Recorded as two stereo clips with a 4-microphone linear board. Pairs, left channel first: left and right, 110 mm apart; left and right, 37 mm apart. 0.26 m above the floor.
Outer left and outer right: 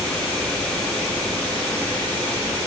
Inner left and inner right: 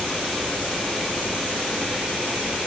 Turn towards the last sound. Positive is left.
No sound to turn to.